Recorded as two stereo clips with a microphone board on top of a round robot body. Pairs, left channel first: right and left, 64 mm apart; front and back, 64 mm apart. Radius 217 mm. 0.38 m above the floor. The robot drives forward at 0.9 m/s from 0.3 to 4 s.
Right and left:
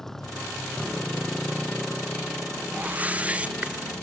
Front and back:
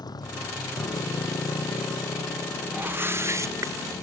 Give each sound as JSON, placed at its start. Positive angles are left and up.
{"t": 0.0, "sound": "a motorcycle", "azimuth_deg": -5}
{"t": 2.7, "sound": "a whoosh", "azimuth_deg": 135}